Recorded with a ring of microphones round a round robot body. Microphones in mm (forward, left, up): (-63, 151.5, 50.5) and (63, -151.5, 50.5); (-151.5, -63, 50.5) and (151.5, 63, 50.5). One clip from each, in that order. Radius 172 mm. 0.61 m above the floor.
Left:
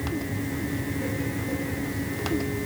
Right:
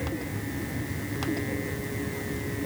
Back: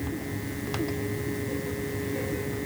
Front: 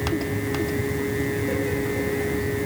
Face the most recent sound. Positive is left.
No sound to turn to.